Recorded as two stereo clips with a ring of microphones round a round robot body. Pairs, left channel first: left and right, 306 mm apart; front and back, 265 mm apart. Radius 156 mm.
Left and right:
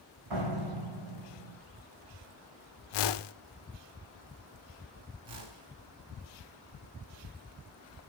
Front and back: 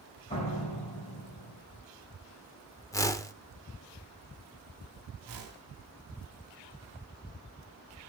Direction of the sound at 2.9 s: 80° left.